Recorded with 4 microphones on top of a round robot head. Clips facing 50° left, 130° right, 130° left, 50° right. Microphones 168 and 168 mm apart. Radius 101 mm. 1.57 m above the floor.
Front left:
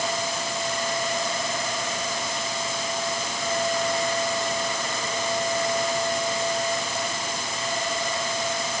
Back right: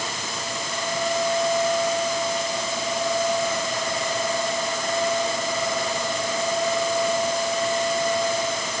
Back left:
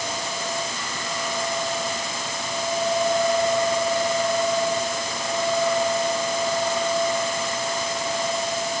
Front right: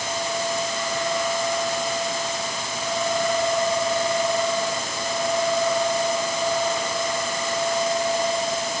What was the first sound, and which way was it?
Only background noise.